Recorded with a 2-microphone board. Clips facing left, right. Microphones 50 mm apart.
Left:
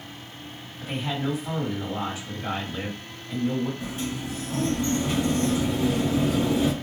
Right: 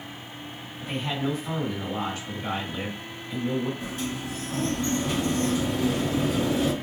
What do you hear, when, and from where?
0.8 s a man speaking: 10° left (ahead or behind), 1.7 m
3.8 s a sliding door: 25° left (ahead or behind), 1.1 m